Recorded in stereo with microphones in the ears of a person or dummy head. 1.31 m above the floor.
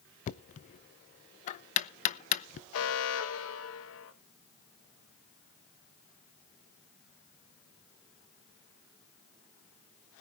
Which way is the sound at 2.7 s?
75° left (ahead or behind).